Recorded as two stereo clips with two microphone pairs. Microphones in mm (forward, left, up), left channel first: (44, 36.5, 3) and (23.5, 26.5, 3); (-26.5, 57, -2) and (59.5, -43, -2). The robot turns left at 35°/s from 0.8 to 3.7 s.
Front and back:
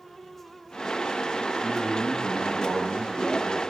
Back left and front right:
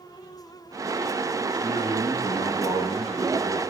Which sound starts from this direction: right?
A man speaking, at 1.5 s.